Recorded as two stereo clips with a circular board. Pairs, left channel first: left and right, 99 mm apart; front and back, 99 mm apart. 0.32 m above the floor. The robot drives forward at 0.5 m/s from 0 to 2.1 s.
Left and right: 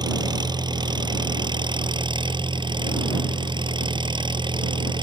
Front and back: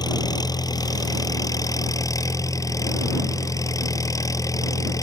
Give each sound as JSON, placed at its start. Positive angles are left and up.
{"t": 0.0, "sound": "an engine running", "azimuth_deg": -45}